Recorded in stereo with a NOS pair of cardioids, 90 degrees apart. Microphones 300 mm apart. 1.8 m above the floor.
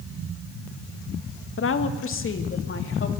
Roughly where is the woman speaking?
Ahead left.